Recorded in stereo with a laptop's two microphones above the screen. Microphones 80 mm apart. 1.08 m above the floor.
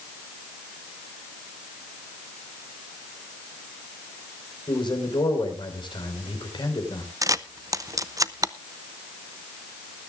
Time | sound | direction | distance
4.7 | a man speaking | 75° left (ahead or behind) | 4.5 m
7.2 | a camera shutter | 45° right (ahead or behind) | 0.6 m